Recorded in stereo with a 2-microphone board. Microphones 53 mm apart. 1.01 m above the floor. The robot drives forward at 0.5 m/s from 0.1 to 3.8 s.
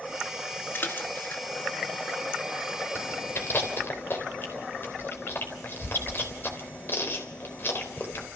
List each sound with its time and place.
0.7 s a splash: 50° left (ahead or behind), 2 m; by 1.4 s 45° left (ahead or behind), 2.5 m
3.0 s chewing: 55° left (ahead or behind), 3.5 m; by 8.3 s 50° left (ahead or behind), 3.5 m